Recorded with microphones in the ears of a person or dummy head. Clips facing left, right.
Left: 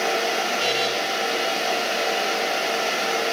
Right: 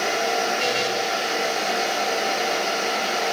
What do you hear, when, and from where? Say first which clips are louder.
0.6 s a buzzer: even; 15° left (ahead or behind), 3.5 m